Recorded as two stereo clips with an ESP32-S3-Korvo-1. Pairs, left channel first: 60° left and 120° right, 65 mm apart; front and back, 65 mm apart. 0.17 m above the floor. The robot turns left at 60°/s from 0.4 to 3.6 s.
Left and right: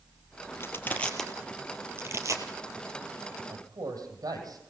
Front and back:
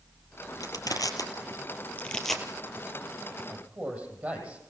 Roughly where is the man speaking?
Behind right.